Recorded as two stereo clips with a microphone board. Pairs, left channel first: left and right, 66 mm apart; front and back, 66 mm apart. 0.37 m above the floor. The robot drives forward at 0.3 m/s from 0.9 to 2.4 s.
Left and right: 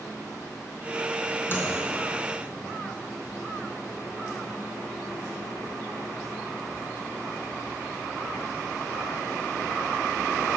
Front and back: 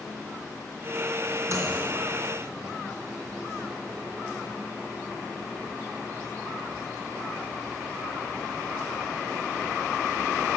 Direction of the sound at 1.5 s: 140° left.